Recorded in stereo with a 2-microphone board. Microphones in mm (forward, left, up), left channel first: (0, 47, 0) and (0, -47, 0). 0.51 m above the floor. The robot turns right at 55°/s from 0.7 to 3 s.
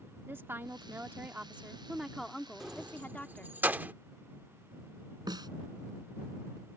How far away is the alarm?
I don't hear an alarm.